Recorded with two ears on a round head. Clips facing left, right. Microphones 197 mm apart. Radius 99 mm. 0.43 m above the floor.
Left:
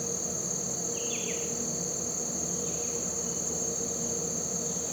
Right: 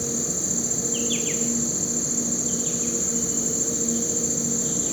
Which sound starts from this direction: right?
An insect, at 0.0 s.